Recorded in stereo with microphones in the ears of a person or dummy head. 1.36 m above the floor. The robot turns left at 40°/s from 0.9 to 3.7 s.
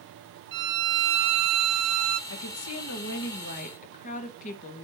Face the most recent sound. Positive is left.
turn(degrees=45)